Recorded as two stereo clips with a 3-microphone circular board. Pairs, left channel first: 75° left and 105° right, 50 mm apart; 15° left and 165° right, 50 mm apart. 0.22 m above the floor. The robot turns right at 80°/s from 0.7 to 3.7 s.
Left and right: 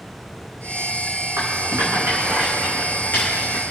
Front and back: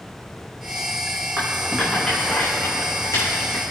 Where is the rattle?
120° right, 5.5 m; by 3.6 s 60° left, 5.5 m.